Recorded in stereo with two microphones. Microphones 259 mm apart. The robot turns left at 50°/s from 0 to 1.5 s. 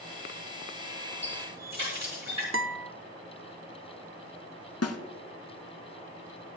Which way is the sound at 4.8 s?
65° left (ahead or behind).